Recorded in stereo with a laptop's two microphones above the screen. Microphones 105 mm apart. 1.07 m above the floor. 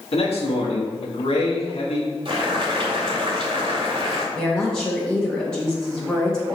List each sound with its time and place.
0.1 s a man speaking: 70° left (ahead or behind), 1.6 m
2.2 s boiling: 55° right (ahead or behind), 2 m
4.3 s a woman speaking: 5° left (ahead or behind), 1.3 m